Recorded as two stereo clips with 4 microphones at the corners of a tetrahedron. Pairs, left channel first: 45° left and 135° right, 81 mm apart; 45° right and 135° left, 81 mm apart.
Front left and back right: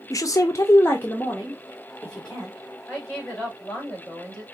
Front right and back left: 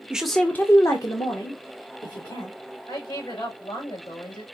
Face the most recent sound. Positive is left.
turn(degrees=-35)